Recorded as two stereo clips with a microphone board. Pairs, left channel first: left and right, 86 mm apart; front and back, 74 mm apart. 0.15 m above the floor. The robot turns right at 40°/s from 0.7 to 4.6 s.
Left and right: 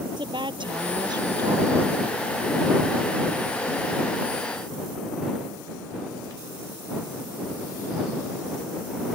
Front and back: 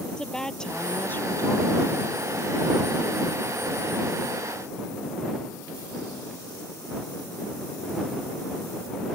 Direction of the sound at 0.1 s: 80° right.